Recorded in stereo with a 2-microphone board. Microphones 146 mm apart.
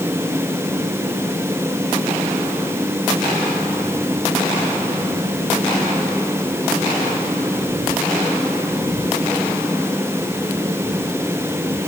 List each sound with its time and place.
Only background noise.